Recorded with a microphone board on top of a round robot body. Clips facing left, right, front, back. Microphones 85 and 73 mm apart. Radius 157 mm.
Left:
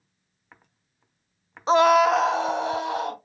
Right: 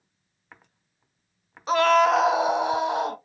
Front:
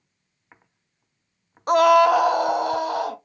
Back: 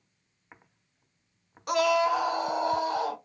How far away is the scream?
About 0.5 m.